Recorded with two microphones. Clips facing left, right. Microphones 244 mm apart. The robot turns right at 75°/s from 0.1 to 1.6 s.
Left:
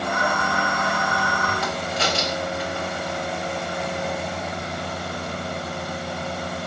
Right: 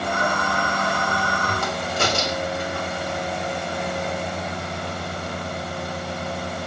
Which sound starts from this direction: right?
A crack, at 1.6 s.